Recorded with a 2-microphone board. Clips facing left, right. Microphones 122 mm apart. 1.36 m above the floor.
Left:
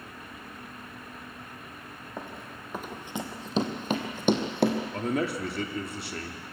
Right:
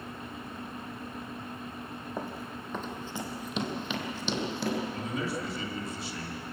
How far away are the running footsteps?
About 3 m.